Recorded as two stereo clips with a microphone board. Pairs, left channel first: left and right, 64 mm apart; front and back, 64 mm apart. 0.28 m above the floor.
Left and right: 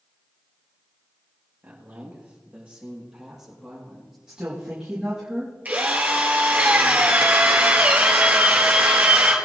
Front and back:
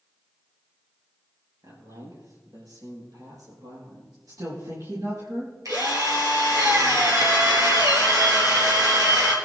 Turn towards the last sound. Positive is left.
turn(degrees=-155)